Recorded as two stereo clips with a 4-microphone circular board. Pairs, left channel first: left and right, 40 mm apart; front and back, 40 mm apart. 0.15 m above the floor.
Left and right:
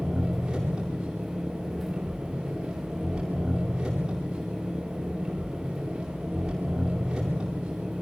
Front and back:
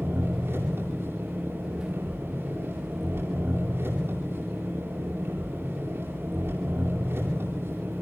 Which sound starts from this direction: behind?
An engine running, at 0.0 s.